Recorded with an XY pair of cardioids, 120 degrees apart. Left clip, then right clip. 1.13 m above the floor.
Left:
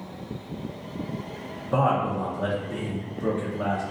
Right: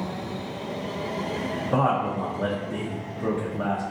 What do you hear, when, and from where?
1.7 s a man speaking: 15° right, 0.6 m